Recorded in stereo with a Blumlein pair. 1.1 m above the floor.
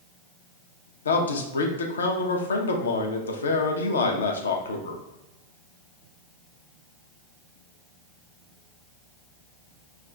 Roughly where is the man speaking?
Left.